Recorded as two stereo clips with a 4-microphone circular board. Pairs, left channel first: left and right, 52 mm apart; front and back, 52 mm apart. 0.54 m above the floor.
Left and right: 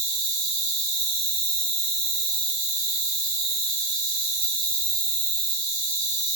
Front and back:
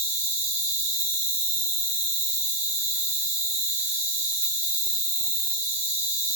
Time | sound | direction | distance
0.0 | an insect | 150° left | 0.8 m